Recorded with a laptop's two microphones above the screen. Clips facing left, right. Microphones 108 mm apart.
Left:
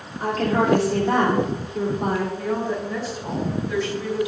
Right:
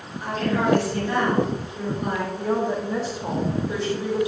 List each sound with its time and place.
0.2 s a woman speaking: 75° left (ahead or behind), 3 m
2.4 s a woman speaking: 30° right (ahead or behind), 3 m